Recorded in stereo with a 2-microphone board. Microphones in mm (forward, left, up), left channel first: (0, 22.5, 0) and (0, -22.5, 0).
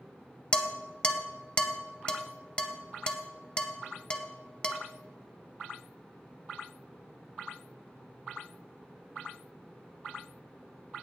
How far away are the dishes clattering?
About 0.7 m.